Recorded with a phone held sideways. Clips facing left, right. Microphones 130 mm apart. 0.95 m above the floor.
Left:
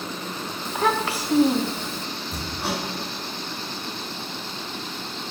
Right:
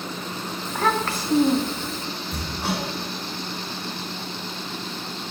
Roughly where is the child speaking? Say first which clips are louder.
Even; centre.